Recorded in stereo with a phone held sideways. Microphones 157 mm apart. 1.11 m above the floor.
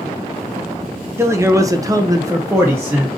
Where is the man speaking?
15° right (ahead or behind), 0.7 m; by 3.2 s 10° right (ahead or behind), 0.9 m.